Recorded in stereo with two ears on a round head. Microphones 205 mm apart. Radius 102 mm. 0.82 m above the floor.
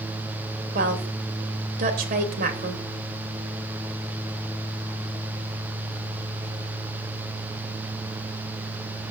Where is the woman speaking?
40° right (ahead or behind), 3 m.